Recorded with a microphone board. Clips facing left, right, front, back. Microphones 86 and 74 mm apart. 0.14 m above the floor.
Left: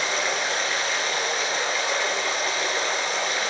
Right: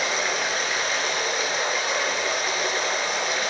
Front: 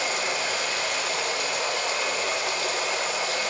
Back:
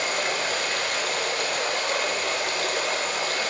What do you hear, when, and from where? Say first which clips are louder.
0.0 s running water: even, back 1 dB; 175° right, 1.5 m